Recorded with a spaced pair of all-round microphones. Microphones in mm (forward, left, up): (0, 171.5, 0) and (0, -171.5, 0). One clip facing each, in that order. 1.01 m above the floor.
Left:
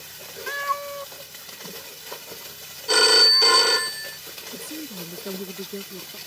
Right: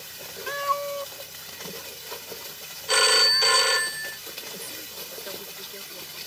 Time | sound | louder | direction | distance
0.5 | a cat meowing | right 4 dB | 35° left (ahead or behind) | ?
2.9 | a phone ringing | left 4 dB | 50° left (ahead or behind) | ?
4.5 | a woman speaking | left 7 dB | 60° left (ahead or behind) | ?